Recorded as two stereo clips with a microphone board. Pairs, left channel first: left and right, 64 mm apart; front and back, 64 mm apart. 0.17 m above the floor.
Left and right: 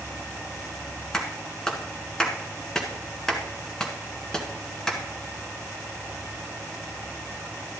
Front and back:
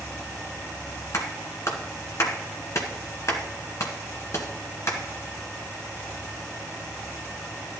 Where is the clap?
10° left, 1.8 m.